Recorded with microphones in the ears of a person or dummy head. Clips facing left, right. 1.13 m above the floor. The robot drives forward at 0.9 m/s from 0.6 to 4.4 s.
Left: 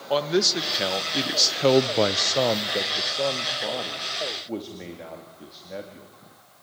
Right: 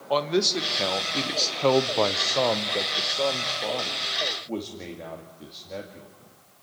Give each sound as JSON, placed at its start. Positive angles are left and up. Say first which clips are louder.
{"t": 0.1, "sound": "a man speaking", "louder": "left 1 dB", "side_deg": 5, "distance_m": 1.3}